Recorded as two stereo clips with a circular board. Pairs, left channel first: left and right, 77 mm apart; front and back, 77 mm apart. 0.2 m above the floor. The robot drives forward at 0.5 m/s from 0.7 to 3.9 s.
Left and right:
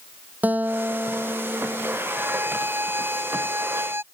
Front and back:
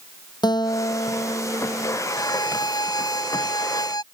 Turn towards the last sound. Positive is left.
turn(degrees=-30)